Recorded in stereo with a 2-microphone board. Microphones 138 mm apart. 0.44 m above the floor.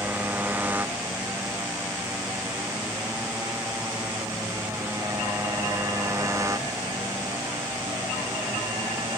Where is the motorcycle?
15° right (ahead or behind); by 9.2 s 25° right (ahead or behind).